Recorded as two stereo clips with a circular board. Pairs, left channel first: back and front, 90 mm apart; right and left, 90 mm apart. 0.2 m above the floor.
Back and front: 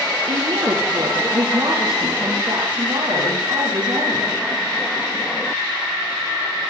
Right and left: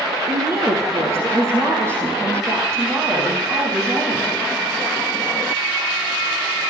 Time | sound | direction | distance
0.3 | a woman speaking | 30° left | 5 m